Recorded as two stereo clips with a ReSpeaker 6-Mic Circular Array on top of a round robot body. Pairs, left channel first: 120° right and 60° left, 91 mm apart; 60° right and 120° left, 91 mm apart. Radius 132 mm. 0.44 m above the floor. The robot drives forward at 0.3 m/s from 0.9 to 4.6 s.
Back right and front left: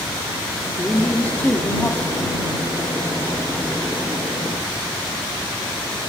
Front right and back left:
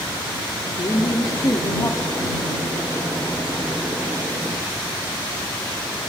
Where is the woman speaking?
50° right, 1.3 m; by 2.5 s 85° right, 1.2 m.